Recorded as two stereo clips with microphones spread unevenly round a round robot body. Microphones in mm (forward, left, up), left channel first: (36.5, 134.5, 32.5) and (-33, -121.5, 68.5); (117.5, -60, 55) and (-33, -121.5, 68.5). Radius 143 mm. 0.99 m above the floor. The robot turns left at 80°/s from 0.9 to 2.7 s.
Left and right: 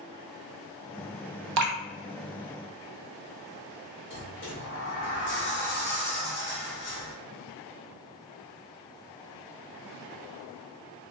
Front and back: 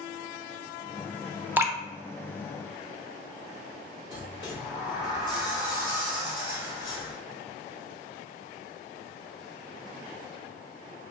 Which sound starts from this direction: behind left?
A sliding door, at 4.1 s.